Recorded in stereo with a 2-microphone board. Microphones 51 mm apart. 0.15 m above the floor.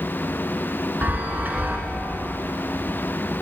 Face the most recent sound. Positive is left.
turn(degrees=-40)  # may be behind; listen again after turning